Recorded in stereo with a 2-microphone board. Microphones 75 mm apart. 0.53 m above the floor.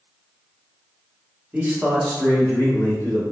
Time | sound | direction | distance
1.5 | a man speaking | 20° right (ahead or behind) | 0.9 m